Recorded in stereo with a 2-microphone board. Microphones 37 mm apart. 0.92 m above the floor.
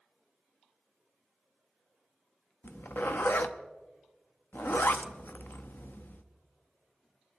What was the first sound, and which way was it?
A zipper, 65° left (ahead or behind).